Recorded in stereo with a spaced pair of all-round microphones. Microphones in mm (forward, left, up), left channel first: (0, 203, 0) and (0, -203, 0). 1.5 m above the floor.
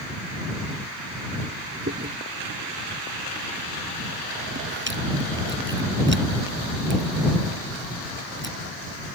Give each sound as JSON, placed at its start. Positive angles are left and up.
{"t": 1.9, "sound": "chewing", "side_deg": -25}